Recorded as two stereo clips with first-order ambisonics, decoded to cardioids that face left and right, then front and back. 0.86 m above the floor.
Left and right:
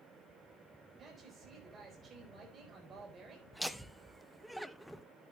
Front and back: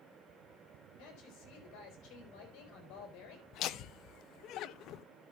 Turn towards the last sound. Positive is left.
turn(degrees=0)